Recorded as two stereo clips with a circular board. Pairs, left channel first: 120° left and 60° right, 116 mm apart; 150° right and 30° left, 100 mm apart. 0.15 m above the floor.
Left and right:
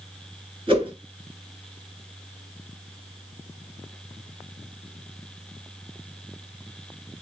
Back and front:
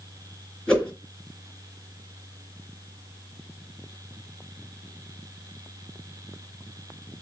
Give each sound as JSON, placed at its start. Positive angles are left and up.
{"t": 0.7, "sound": "a whoosh", "azimuth_deg": -65, "distance_m": 2.5}